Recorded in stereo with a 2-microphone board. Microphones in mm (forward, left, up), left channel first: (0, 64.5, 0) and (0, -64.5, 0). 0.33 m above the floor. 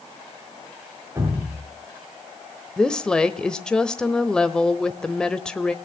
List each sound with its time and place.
1.1 s dripping: 20° right (ahead or behind), 5 m
2.8 s a woman speaking: 5° left (ahead or behind), 1.0 m